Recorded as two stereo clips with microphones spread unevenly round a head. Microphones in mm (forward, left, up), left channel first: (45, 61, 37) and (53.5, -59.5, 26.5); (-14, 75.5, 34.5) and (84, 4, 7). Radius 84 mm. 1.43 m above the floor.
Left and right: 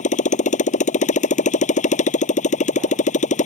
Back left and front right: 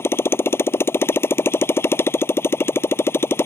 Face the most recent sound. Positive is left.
turn(degrees=75)